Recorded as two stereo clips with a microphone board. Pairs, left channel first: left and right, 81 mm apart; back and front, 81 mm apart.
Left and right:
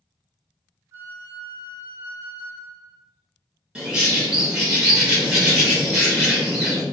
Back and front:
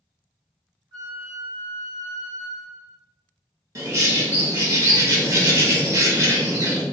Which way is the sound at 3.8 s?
15° right.